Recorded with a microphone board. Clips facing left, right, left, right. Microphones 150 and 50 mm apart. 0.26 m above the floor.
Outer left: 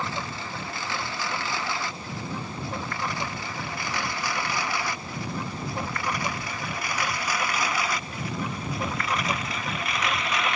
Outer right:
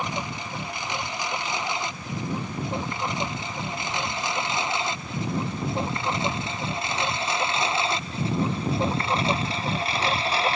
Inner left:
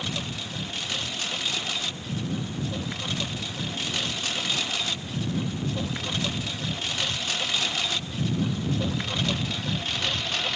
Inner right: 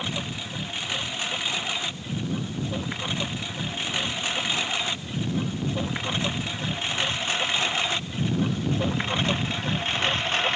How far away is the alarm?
No alarm in this recording.